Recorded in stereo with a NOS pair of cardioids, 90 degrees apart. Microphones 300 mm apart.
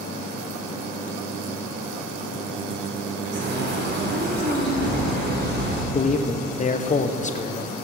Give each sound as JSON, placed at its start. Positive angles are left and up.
{"t": 3.3, "sound": "a bird", "azimuth_deg": -40, "distance_m": 3.5}
{"t": 5.9, "sound": "a man speaking", "azimuth_deg": 25, "distance_m": 1.2}